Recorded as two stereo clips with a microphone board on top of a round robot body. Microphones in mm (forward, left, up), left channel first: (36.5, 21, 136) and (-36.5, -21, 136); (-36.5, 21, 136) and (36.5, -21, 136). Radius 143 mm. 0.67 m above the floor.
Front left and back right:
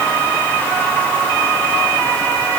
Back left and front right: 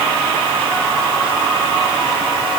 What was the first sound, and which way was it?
Only background noise.